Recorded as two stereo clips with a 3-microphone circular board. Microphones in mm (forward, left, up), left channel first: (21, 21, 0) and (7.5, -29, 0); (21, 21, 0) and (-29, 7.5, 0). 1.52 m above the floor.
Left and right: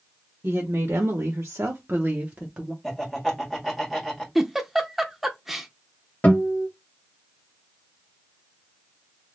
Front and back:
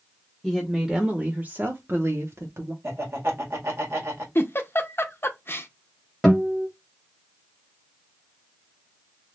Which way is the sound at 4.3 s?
20° right.